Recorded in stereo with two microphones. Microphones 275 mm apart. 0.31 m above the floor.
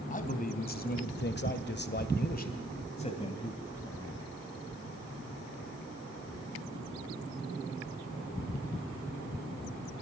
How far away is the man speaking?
About 2 m.